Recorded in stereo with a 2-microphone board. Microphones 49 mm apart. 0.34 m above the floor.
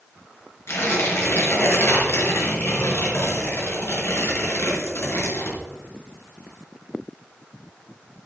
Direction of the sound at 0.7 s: 60° left (ahead or behind).